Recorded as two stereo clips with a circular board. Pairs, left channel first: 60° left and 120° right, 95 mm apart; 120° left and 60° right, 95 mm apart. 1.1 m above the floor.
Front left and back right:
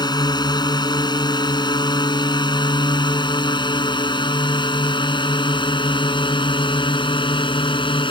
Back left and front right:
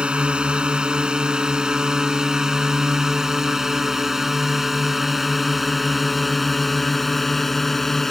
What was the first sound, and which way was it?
A drone, 20° left.